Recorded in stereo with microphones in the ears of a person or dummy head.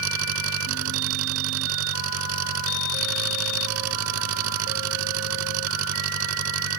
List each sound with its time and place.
0.0 s an engine running: 70° right (ahead or behind)